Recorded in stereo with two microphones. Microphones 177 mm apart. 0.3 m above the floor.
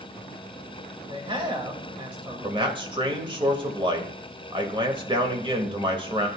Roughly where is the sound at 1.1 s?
Right.